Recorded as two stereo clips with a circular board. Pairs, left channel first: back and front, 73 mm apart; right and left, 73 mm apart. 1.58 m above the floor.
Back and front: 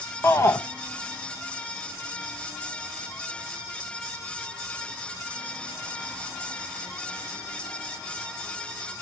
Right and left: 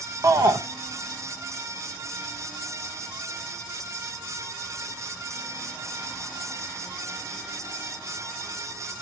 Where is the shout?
130° left, 0.9 m.